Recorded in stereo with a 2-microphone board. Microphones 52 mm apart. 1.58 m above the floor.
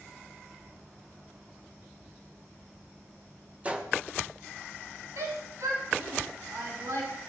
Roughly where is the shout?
Right.